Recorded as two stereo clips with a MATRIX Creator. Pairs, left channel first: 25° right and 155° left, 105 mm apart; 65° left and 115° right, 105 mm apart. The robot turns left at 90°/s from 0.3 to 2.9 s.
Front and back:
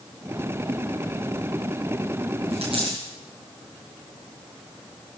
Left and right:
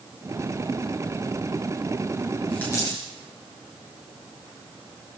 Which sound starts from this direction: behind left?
A dropped coin, at 2.5 s.